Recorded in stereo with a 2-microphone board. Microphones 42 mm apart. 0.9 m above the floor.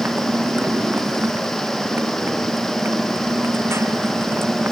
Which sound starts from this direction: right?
A motorcycle, at 0.0 s.